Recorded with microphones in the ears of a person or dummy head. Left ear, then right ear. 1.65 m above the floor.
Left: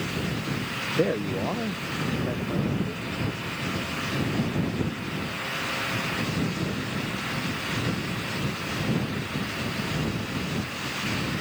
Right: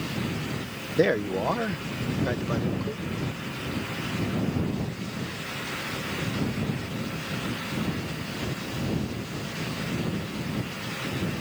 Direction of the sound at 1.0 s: 50° right (ahead or behind).